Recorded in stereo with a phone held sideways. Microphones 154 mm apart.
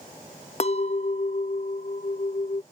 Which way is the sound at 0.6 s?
45° left (ahead or behind).